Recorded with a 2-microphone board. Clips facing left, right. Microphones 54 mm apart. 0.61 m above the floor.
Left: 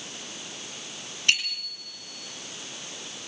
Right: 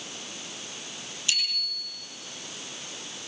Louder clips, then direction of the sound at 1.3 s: Left 6 dB; 70° left (ahead or behind).